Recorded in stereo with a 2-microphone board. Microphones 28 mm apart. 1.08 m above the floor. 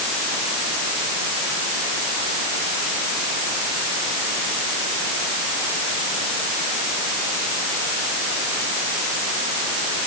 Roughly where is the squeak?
No squeak in this recording.